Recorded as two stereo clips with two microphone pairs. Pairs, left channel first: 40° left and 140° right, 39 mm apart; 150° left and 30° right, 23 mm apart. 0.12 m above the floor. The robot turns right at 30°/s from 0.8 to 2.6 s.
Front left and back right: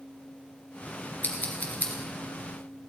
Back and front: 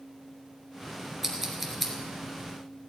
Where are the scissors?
45° left, 2.5 m; by 1.9 s 65° left, 2.5 m.